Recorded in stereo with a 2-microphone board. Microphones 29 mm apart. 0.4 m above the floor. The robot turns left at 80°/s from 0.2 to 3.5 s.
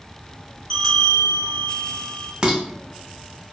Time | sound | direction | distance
0.7 | a bell | 160° left | 0.8 m
2.4 | dishes clattering | 30° right (ahead or behind) | 0.5 m